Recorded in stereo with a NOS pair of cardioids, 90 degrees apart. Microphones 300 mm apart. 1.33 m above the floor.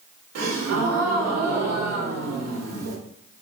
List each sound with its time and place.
0.3 s a gasp: 65° right, 1.1 m